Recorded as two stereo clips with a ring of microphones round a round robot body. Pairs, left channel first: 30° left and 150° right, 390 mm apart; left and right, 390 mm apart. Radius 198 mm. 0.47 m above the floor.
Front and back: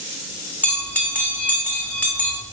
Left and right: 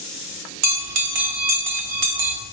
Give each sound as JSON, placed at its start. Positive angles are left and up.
{"t": 0.6, "sound": "a bell", "azimuth_deg": -55, "distance_m": 1.0}